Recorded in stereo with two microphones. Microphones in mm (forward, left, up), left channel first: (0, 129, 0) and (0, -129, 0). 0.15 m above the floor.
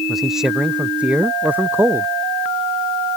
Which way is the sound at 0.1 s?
Centre (ahead or behind).